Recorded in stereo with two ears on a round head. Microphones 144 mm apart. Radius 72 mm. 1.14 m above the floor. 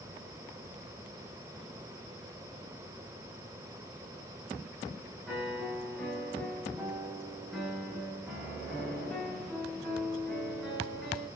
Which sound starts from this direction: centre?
A piano, at 5.3 s.